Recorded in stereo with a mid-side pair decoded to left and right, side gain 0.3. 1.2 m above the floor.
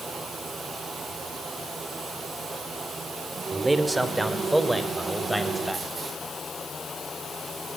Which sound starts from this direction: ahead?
A man speaking, at 3.5 s.